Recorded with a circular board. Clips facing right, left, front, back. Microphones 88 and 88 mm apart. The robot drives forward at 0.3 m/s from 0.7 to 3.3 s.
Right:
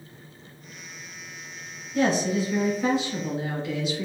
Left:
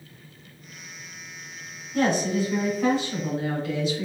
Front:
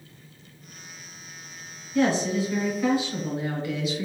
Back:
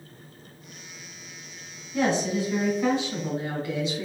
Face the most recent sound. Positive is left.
turn(degrees=125)